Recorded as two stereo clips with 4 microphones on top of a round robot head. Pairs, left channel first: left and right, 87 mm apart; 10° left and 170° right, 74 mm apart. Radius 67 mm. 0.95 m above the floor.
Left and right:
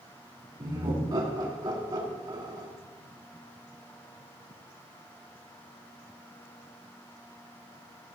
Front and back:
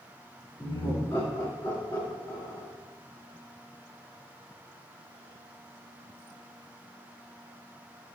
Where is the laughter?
50° right, 2.5 m.